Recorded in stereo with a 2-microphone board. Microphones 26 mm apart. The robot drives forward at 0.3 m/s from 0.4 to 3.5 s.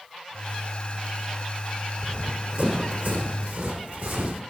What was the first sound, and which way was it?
Running footsteps, 60° right (ahead or behind).